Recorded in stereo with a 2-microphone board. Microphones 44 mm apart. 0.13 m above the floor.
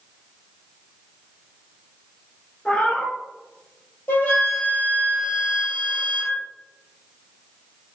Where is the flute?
40° left (ahead or behind), 1.1 m.